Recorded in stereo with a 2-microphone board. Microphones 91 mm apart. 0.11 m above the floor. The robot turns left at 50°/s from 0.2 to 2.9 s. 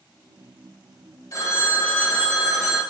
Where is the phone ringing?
70° left, 1.0 m; by 2.8 s 5° right, 1.0 m.